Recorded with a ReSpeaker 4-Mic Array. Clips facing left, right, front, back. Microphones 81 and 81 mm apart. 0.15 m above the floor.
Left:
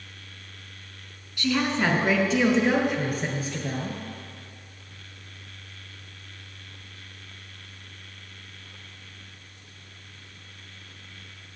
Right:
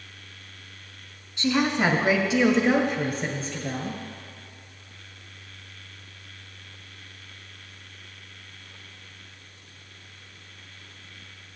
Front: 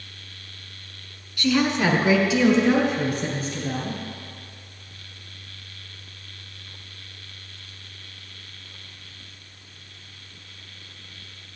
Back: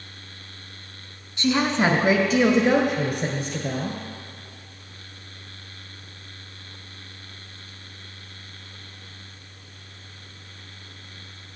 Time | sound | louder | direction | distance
1.4 | a woman speaking | right 2 dB, even | 135° right | 1.2 m